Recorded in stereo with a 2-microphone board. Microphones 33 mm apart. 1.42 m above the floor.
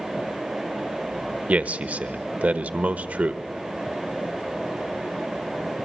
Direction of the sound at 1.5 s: 50° right (ahead or behind).